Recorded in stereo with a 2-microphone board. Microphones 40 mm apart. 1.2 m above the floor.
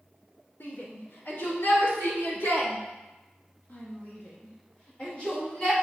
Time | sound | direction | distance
0.6 | a shout | 85° left | 3 m